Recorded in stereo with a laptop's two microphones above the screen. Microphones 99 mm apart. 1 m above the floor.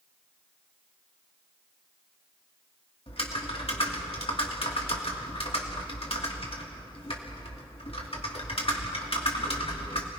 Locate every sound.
3.1 s typing on a keyboard: 70° left (ahead or behind), 2.5 m